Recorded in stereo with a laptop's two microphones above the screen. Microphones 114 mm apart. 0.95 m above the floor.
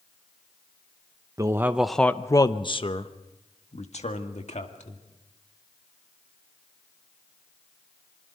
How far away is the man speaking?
About 0.9 m.